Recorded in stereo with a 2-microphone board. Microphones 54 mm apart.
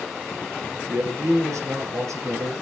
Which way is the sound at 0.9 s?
70° right (ahead or behind).